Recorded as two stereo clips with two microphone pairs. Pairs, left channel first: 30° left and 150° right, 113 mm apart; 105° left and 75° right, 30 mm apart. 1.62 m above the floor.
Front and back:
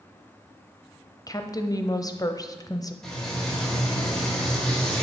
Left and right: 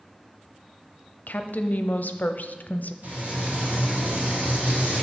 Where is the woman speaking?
85° left, 0.5 m.